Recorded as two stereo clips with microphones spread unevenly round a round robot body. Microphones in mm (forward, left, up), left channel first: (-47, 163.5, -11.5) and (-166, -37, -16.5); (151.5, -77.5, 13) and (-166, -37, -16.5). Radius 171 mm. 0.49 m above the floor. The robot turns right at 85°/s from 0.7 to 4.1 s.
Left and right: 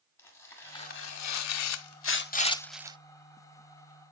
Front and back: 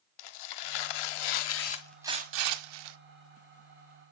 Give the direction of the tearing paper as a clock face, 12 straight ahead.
1 o'clock.